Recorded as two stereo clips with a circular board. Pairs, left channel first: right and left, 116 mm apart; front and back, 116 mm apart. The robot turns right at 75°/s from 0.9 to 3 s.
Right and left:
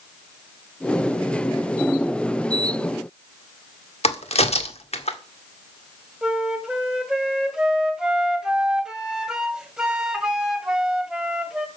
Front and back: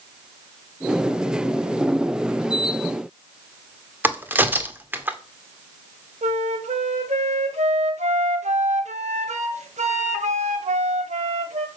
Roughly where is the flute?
Behind.